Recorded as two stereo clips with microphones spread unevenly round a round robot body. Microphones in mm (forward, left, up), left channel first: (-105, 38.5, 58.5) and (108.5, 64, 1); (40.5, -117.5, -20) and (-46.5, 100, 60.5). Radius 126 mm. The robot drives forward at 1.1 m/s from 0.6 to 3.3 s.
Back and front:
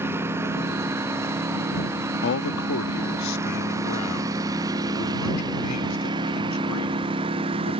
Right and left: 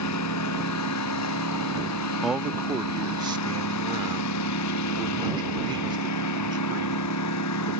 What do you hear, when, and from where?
0.0 s a lawn mower: 75° right; by 7.8 s 60° right
2.2 s a man speaking: 130° right; by 7.8 s 170° right